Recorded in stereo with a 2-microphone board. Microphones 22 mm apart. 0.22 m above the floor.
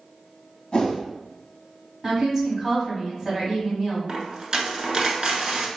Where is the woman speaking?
20° right (ahead or behind), 1.6 m.